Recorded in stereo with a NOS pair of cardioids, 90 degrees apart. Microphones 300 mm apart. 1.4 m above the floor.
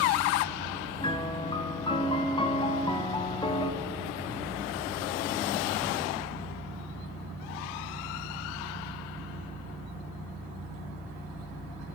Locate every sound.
1.0 s a piano: 15° left, 0.7 m